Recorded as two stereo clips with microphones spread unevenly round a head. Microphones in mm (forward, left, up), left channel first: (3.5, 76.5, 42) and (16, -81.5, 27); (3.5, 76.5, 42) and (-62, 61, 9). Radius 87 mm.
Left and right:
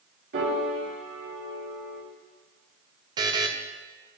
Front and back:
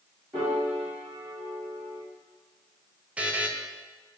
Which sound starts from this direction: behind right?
A buzzer, at 3.2 s.